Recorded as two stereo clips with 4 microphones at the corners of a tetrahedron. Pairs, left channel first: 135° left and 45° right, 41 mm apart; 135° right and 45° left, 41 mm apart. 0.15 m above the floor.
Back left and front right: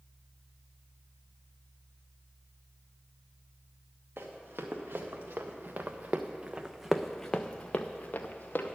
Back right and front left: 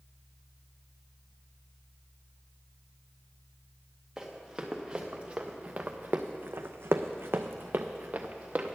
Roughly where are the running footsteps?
Ahead right.